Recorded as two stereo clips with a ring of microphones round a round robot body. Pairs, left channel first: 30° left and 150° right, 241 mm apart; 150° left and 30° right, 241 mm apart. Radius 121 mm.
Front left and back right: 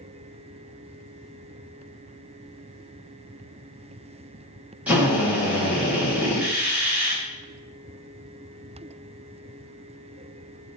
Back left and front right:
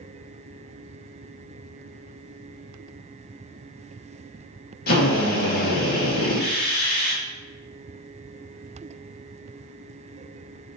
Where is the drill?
130° left, 1.4 m.